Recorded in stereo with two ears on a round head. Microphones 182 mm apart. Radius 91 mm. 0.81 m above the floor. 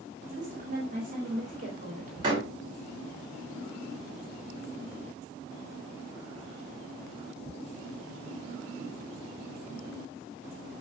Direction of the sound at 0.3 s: 40° right (ahead or behind).